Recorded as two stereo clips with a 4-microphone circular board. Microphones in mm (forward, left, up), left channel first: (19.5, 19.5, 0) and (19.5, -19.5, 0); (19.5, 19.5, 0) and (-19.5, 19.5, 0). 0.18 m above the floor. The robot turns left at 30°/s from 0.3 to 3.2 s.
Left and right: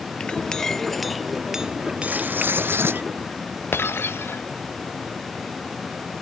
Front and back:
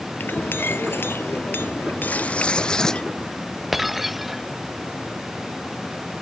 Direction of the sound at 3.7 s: 95° left.